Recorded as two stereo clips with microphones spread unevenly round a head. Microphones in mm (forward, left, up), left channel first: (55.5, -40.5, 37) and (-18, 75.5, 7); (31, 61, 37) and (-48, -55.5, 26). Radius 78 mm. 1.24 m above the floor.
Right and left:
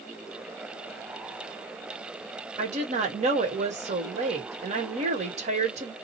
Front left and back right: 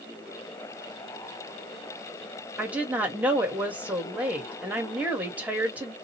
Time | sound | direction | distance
2.6 | a woman speaking | 160° left | 1.3 m